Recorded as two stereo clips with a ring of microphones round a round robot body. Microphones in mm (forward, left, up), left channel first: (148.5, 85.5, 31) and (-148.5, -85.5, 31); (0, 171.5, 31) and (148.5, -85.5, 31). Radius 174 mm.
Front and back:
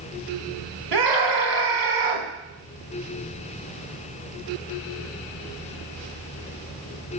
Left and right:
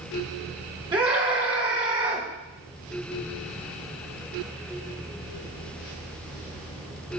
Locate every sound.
0.9 s a scream: 135° right, 3 m